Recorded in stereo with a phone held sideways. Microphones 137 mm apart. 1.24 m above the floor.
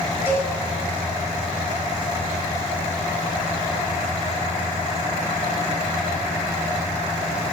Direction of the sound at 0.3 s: 15° right (ahead or behind).